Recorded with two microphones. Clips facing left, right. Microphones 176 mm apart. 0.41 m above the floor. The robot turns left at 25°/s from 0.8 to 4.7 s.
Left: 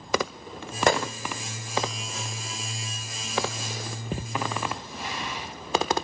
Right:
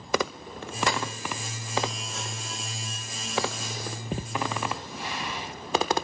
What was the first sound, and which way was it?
A gunshot, 50° left (ahead or behind).